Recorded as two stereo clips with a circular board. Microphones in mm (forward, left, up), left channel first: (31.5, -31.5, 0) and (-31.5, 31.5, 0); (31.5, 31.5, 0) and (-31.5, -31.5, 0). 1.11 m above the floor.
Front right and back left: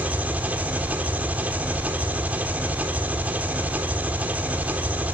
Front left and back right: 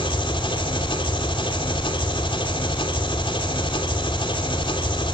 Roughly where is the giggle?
No giggle in this recording.